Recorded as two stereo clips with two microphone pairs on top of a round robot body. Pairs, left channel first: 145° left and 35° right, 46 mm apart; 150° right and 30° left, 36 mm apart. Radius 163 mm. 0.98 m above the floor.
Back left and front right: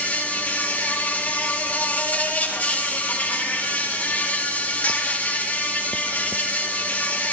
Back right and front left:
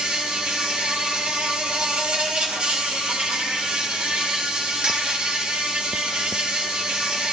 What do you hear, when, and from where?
0.0 s an insect: 90° left, 3.5 m